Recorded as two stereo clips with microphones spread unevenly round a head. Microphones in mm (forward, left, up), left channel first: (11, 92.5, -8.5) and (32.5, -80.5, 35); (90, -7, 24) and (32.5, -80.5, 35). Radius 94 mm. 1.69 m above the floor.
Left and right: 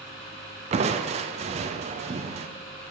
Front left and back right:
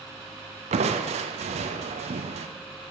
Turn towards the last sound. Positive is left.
turn(degrees=-145)